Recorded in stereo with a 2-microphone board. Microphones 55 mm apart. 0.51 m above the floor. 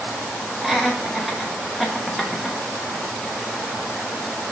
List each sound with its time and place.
0.6 s laughter: 5° right (ahead or behind), 0.7 m